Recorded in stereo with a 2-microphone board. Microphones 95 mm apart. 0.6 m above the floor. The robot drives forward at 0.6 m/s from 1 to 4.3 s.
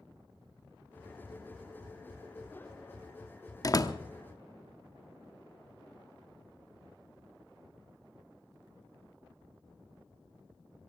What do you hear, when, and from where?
3.6 s a door slam: 35° left (ahead or behind), 0.9 m; by 4.0 s 40° left (ahead or behind), 0.9 m